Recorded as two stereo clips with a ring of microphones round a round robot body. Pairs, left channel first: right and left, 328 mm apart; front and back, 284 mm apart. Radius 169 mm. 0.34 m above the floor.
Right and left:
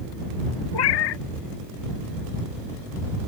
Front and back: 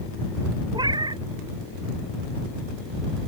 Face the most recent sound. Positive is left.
turn(degrees=-100)